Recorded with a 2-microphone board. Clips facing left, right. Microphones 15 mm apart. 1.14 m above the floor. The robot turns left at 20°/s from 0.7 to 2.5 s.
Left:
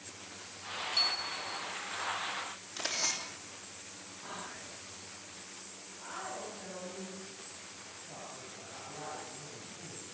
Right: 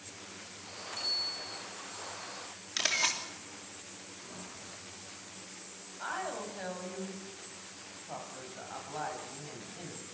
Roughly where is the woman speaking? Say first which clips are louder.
Right 5 dB; right.